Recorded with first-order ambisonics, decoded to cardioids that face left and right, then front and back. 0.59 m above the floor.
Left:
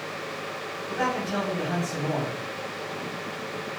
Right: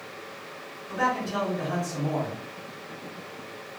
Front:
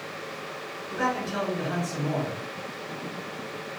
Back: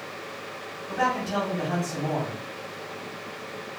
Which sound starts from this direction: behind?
A man speaking, at 0.9 s.